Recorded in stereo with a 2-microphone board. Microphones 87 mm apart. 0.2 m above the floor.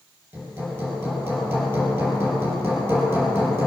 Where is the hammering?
25° right (ahead or behind), 4.5 m.